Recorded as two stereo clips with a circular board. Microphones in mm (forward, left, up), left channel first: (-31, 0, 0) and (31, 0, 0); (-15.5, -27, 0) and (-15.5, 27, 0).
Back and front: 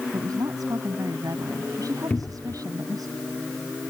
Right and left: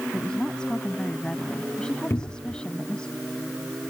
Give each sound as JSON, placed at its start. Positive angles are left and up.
{"t": 0.1, "sound": "a woman speaking", "azimuth_deg": -15}
{"t": 2.1, "sound": "a cupboard door", "azimuth_deg": -115}